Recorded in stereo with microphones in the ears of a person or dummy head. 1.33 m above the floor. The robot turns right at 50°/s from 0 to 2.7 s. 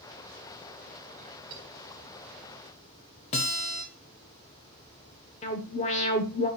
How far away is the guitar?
About 1.5 m.